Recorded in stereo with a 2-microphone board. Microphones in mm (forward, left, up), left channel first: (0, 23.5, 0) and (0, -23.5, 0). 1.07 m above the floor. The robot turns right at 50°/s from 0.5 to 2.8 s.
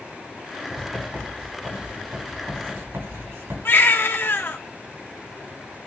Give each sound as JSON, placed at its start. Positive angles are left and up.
{"t": 0.7, "sound": "writing", "side_deg": 10, "distance_m": 4.5}
{"t": 3.6, "sound": "a baby crying", "side_deg": 55, "distance_m": 1.5}